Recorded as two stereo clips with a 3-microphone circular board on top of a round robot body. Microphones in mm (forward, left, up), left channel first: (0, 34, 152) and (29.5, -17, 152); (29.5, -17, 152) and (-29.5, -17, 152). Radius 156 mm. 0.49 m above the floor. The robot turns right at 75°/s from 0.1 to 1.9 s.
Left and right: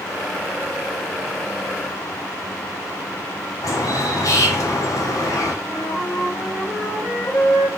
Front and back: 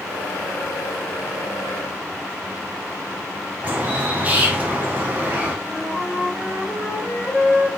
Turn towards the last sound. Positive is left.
turn(degrees=90)